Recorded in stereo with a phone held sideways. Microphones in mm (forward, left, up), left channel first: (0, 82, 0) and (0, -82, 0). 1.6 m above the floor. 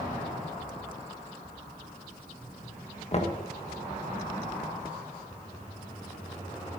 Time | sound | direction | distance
3.1 | knocking | 40° left (ahead or behind) | 1.4 m